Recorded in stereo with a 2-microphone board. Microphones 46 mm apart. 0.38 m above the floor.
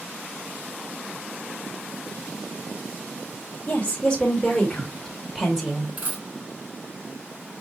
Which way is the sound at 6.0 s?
40° right (ahead or behind).